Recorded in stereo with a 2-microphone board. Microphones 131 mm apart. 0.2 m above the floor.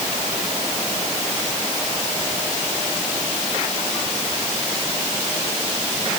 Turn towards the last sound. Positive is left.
No sound to turn to.